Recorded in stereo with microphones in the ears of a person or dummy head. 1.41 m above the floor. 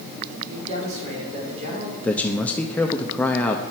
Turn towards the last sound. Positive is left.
turn(degrees=5)  # may be behind; listen again after turning